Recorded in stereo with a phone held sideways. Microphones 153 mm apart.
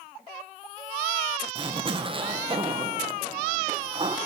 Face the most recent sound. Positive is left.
turn(degrees=-35)  # may be behind; listen again after turning